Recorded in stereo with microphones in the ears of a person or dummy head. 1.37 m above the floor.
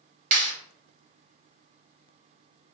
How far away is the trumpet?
No trumpet in this recording.